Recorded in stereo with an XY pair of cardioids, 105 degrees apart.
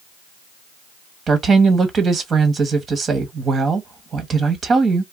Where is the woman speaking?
45° right, 1.3 m.